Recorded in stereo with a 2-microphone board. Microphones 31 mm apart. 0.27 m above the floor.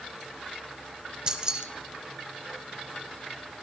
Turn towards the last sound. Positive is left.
turn(degrees=-30)  # may be behind; listen again after turning